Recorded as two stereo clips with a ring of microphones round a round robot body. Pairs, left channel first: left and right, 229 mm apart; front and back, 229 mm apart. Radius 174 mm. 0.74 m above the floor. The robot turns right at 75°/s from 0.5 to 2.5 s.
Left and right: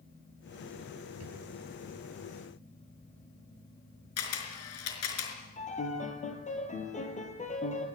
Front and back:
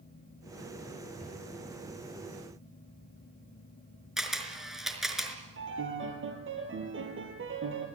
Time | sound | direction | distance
1.2 | a drawer | 80° right | 6 m
4.2 | a camera shutter | 90° left | 4.5 m
5.6 | a piano | 150° left | 4 m